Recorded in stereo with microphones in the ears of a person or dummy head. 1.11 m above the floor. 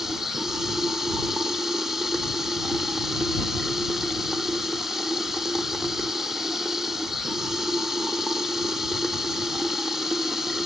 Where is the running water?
5° right (ahead or behind).